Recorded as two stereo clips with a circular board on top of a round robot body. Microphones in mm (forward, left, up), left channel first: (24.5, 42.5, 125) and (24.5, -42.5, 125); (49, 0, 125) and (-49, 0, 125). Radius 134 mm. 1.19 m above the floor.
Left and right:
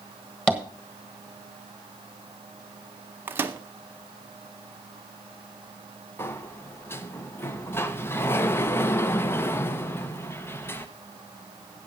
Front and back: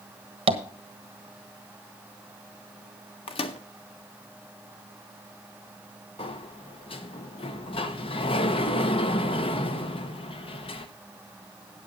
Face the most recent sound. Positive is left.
turn(degrees=30)